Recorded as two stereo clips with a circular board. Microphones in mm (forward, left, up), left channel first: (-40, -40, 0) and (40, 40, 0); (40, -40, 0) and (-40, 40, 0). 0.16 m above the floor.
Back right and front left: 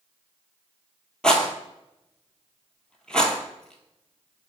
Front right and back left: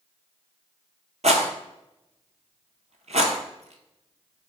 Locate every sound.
1.2 s a rattle: 140° left, 0.7 m